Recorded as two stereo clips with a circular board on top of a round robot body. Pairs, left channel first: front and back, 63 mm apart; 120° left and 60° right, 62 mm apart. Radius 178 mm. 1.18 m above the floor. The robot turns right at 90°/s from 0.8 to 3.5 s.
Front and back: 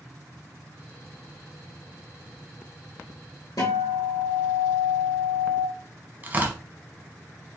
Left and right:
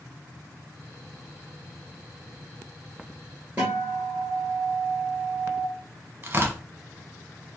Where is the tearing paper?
120° right, 0.9 m.